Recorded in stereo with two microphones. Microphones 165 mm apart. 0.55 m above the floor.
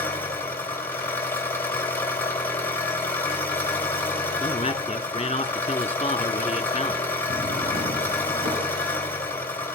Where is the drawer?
65° right (ahead or behind), 3 m.